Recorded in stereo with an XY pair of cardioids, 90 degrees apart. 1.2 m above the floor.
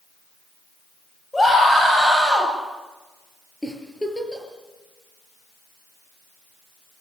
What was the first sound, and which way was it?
A scream, 15° left.